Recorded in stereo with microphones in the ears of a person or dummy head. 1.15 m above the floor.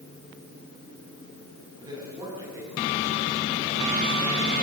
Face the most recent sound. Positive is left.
turn(degrees=-15)  # may be behind; listen again after turning